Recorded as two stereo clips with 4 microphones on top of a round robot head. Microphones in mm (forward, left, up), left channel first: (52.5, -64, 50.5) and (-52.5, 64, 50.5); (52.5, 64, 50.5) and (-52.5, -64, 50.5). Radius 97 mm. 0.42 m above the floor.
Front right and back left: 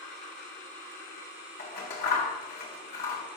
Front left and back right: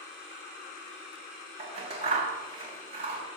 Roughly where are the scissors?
Right.